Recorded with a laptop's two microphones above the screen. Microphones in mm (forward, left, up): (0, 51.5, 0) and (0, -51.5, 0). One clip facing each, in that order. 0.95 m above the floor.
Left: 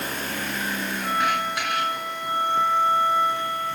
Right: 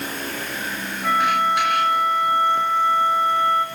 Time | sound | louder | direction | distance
1.0 | a flute | right 6 dB | 75° right (ahead or behind) | 3 m